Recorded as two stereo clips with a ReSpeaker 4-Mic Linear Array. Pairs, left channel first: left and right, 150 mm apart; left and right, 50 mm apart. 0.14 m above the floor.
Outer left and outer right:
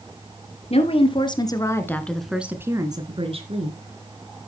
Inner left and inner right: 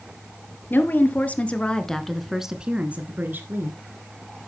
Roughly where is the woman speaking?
Left.